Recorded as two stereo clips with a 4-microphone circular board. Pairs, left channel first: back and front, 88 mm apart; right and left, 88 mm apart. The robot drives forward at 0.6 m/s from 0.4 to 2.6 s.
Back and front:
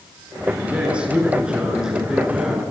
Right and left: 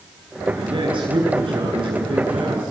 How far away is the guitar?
I don't hear a guitar.